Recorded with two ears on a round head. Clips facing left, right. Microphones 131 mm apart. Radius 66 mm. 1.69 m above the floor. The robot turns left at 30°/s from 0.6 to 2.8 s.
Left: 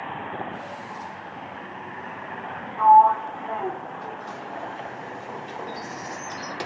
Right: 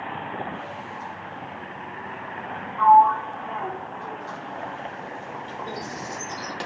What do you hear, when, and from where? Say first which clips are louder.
2.8 s a sliding door: left 1 dB; 15° left (ahead or behind), 1.4 m
5.7 s a bird: right 1 dB; 30° right (ahead or behind), 7 m